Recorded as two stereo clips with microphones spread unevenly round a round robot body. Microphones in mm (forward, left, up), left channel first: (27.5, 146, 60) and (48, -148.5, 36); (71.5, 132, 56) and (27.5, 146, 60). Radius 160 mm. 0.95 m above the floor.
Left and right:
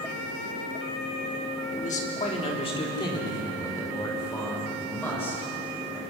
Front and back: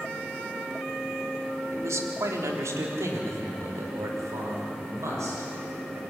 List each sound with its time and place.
1.7 s a man speaking: 160° left, 2.5 m; by 6.0 s straight behind, 6 m